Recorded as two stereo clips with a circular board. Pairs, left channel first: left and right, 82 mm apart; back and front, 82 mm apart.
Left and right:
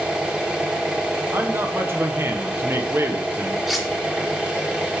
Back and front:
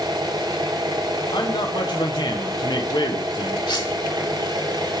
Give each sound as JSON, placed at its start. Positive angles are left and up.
{"t": 0.0, "sound": "an engine running", "azimuth_deg": -15, "distance_m": 1.8}
{"t": 1.3, "sound": "a man speaking", "azimuth_deg": -150, "distance_m": 1.1}
{"t": 3.7, "sound": "cutlery clinking", "azimuth_deg": 180, "distance_m": 1.8}